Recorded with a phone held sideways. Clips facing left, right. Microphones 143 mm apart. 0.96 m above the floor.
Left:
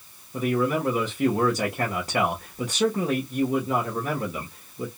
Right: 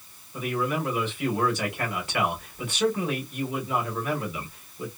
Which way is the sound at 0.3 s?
40° left (ahead or behind).